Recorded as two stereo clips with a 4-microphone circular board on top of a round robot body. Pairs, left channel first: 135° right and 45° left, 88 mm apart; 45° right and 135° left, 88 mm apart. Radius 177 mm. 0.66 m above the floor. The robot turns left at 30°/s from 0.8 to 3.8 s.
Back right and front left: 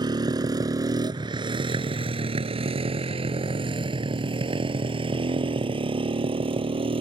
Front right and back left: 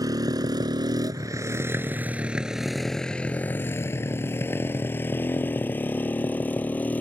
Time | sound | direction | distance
0.0 | a motorcycle | 85° left | ?